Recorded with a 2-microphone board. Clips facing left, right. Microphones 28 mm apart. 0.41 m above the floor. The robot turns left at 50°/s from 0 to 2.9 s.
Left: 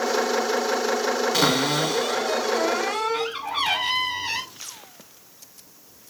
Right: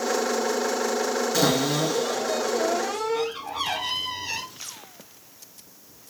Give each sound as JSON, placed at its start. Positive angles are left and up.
{"t": 1.3, "sound": "a cupboard door", "azimuth_deg": 140, "distance_m": 1.1}